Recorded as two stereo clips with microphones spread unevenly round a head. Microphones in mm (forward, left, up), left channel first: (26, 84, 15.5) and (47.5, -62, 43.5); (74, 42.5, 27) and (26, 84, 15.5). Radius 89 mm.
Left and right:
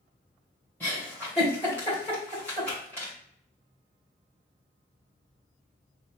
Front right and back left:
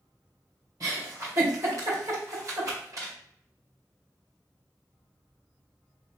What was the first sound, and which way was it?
A giggle, 175° right.